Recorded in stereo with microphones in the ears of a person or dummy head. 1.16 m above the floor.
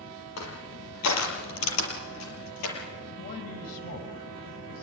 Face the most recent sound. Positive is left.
turn(degrees=45)  # may be behind; listen again after turning